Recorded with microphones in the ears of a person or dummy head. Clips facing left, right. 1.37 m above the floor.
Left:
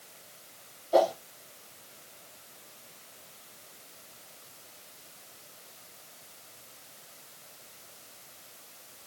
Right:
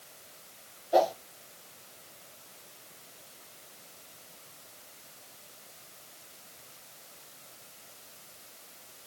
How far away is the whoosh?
About 1.2 m.